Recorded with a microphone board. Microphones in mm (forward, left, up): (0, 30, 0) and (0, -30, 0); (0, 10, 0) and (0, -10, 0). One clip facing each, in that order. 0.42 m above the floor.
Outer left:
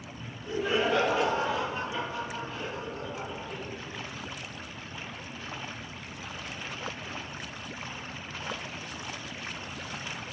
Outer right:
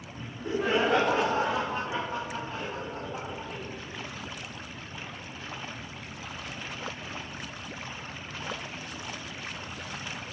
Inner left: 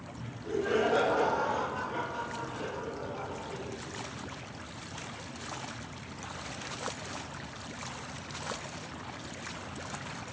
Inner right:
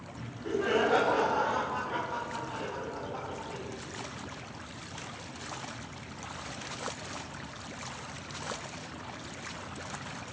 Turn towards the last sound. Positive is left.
turn(degrees=-30)  # may be behind; listen again after turning